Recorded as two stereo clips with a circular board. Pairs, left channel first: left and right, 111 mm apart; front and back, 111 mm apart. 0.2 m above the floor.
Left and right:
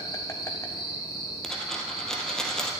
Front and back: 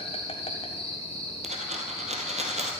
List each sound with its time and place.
0.0 s an insect: 30° left, 1.6 m
1.4 s a dropped coin: 175° left, 1.9 m